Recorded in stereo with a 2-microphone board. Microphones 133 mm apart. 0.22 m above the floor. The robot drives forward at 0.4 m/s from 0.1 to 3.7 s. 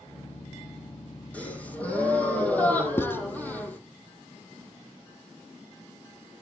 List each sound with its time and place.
1.3 s a gasp: 10° left (ahead or behind), 4 m; by 3.8 s 15° left (ahead or behind), 3.5 m
3.0 s writing: 20° left (ahead or behind), 0.6 m; by 3.2 s 15° left (ahead or behind), 0.7 m